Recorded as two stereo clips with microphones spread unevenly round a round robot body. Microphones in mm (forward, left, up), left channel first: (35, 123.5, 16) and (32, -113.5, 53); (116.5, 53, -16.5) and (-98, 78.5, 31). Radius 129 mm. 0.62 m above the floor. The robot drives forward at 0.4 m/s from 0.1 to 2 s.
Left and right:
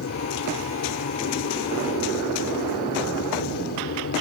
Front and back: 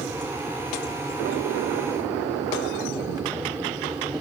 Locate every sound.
0.0 s an aircraft: 90° left; by 4.2 s 95° left